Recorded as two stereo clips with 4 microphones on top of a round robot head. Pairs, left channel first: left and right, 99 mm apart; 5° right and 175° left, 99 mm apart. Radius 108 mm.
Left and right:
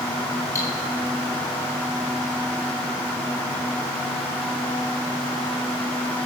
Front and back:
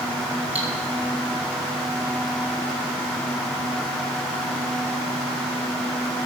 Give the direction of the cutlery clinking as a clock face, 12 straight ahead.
7 o'clock.